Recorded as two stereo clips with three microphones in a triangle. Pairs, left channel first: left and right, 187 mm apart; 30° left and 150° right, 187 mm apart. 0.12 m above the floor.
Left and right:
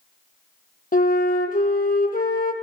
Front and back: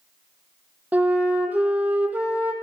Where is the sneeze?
No sneeze in this recording.